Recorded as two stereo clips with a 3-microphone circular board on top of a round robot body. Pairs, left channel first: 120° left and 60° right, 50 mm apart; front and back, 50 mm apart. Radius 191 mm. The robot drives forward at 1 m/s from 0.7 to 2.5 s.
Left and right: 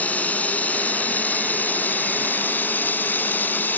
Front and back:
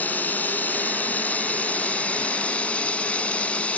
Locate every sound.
0.0 s running water: 60° left; by 3.8 s 65° left